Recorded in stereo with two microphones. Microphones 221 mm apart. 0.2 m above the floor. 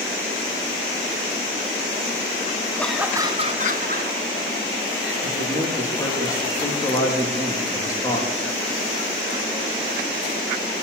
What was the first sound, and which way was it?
Laughter, 10° left (ahead or behind).